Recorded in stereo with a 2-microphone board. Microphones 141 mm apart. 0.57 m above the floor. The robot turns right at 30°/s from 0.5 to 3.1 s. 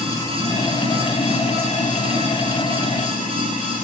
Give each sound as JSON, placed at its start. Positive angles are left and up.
{"t": 0.0, "sound": "running water", "azimuth_deg": 25, "distance_m": 6.0}